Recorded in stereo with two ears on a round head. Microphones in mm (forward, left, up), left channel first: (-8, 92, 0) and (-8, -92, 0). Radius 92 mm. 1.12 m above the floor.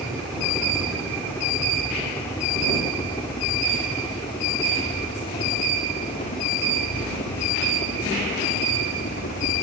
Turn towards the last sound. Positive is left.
turn(degrees=50)  # may be behind; listen again after turning